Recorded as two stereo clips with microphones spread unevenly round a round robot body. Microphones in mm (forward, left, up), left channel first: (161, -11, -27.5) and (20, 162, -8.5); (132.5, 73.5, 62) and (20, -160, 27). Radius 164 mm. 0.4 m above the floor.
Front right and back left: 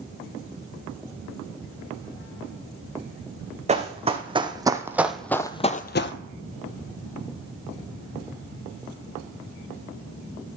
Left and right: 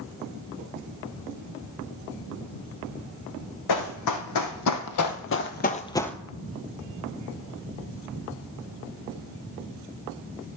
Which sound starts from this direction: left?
Running footsteps, at 3.7 s.